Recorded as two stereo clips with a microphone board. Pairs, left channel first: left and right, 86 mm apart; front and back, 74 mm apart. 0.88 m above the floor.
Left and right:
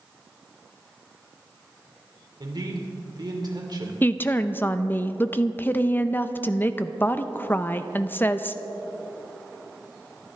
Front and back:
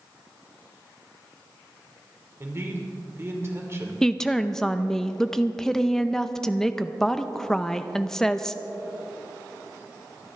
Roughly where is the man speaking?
Behind right.